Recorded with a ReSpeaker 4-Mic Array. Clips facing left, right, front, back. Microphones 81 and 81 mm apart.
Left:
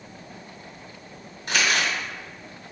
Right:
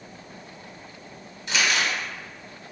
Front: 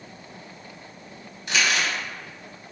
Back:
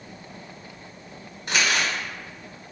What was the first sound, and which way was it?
Crumpling, 135° left.